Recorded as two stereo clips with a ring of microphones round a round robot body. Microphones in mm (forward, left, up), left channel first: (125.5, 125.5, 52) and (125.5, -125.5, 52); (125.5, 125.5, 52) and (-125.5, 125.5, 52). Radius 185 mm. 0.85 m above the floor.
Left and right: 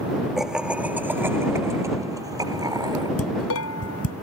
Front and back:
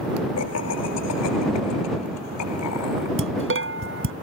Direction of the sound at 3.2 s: 145° left.